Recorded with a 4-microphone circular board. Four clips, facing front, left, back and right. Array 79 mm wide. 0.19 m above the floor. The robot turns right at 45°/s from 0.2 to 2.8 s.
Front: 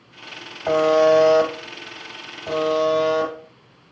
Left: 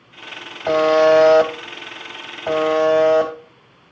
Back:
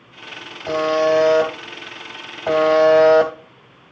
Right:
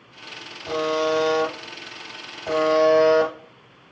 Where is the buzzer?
65° left, 3 m; by 3.3 s 165° left, 3 m.